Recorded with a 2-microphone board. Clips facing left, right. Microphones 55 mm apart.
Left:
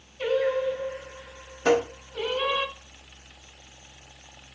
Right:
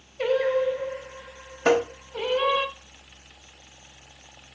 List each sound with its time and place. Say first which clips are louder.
0.2 s singing: right 2 dB; 75° right (ahead or behind), 2.5 m
1.6 s tapping: right 1 dB; 45° right (ahead or behind), 1.1 m